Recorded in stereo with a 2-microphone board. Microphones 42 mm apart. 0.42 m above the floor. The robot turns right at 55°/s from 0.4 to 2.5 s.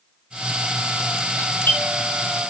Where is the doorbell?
55° left (ahead or behind), 6 m; by 2.5 s 5° right (ahead or behind), 6 m.